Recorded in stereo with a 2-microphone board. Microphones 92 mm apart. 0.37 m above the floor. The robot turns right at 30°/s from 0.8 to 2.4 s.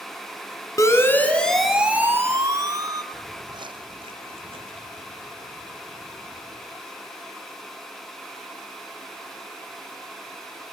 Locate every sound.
0.8 s a siren: 35° left (ahead or behind), 3 m; by 3.0 s 45° right (ahead or behind), 2.5 m
3.1 s footsteps: 35° right (ahead or behind), 0.8 m; by 6.7 s 75° right (ahead or behind), 3 m